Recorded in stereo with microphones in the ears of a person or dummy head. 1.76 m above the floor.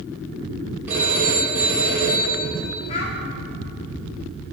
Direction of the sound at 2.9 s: 40° left (ahead or behind).